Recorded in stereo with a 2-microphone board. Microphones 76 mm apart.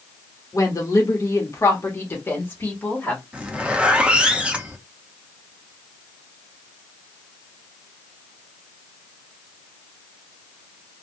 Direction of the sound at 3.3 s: 15° right (ahead or behind).